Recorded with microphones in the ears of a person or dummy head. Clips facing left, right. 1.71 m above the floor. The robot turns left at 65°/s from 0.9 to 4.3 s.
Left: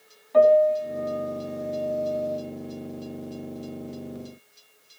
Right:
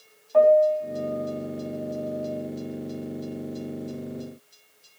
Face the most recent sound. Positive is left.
turn(degrees=-75)